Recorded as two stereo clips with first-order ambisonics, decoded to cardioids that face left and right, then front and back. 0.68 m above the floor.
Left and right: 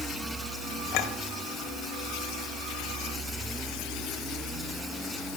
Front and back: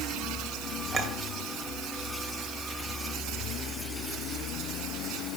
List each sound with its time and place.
0.9 s a clink: 115° left, 1.7 m